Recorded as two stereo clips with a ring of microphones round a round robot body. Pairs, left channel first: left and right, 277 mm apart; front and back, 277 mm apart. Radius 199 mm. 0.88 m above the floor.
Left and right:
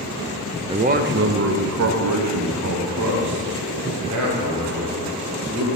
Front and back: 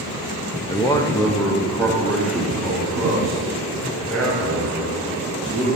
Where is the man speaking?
50° right, 0.7 m; by 5.7 s 90° right, 4 m.